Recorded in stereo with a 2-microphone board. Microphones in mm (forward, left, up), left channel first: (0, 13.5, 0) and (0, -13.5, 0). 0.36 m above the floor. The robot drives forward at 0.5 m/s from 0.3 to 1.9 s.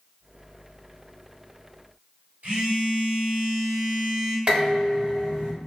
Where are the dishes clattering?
40° right (ahead or behind), 1.3 m.